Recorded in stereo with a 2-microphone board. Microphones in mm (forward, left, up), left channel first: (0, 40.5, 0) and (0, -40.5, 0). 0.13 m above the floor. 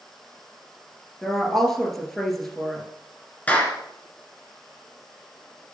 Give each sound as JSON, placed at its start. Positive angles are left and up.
{"t": 1.2, "sound": "a woman speaking", "side_deg": 5, "distance_m": 1.9}
{"t": 3.5, "sound": "a clap", "side_deg": 20, "distance_m": 1.6}